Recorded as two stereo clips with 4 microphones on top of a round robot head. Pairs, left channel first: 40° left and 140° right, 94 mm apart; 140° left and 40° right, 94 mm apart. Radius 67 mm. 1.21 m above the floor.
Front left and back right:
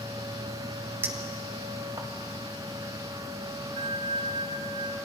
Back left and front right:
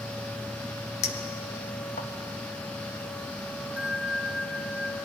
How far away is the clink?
About 1.1 m.